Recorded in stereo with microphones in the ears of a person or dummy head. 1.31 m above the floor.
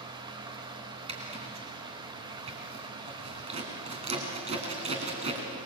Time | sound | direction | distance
0.0 | running water | 25° right (ahead or behind) | 1.5 m
1.1 | a zipper | 30° right (ahead or behind) | 3 m